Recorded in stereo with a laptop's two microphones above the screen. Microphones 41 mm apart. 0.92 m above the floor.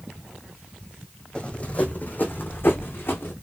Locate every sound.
1.4 s running footsteps: 25° left (ahead or behind), 1.7 m; by 3.3 s 70° left (ahead or behind), 2.5 m